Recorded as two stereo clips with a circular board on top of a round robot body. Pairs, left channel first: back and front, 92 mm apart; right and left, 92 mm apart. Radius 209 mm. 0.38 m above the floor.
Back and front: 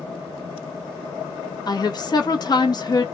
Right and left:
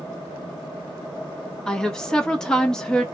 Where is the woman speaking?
170° right, 1.5 m.